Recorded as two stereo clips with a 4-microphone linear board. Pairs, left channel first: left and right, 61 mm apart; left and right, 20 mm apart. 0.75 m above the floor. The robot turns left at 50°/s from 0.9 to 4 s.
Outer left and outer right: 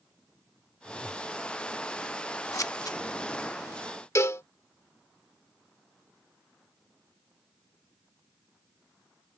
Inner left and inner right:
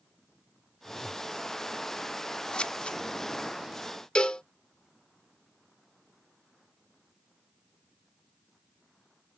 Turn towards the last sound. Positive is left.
turn(degrees=50)  # may be behind; listen again after turning